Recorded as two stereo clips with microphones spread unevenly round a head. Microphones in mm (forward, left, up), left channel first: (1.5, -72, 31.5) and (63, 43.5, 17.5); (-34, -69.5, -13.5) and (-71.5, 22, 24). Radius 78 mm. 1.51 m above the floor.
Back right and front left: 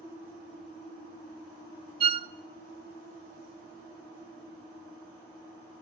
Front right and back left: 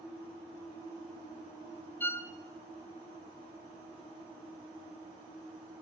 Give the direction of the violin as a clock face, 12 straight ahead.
12 o'clock.